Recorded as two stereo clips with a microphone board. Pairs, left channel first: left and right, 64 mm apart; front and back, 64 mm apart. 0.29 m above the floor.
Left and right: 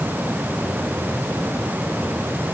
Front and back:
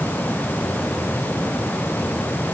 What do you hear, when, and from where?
Only background noise.